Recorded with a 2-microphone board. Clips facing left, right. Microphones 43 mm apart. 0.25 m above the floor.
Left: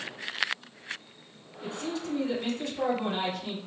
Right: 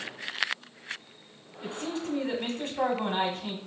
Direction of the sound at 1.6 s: 30° right (ahead or behind).